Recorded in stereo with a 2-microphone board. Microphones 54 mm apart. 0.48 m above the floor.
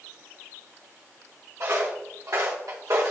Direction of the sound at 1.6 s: 50° right (ahead or behind).